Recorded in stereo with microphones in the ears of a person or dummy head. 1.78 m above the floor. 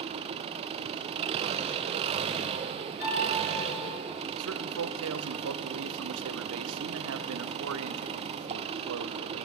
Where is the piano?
60° left (ahead or behind), 7.5 m.